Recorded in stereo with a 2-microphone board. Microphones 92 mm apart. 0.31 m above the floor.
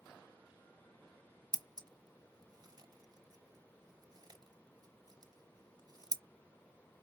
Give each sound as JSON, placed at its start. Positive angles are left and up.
{"t": 1.5, "sound": "scissors", "side_deg": -45, "distance_m": 0.5}